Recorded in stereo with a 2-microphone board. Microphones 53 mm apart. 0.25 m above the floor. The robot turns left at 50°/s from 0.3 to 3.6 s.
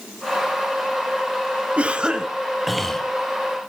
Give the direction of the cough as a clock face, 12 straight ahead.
4 o'clock.